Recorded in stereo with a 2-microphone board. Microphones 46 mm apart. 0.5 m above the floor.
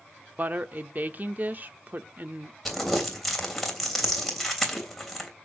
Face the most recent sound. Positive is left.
turn(degrees=0)  # may be behind; listen again after turning